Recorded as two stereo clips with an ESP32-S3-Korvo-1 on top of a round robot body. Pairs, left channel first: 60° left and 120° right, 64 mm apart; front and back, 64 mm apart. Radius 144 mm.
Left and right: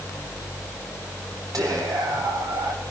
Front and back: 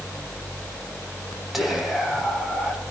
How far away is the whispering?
About 8.5 m.